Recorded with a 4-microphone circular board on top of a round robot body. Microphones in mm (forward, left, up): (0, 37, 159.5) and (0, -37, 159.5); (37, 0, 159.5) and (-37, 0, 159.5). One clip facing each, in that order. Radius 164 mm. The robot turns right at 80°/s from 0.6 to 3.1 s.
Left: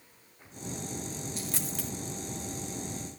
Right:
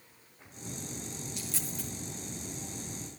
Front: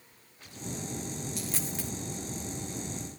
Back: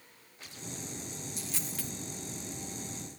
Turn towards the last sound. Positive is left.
turn(degrees=175)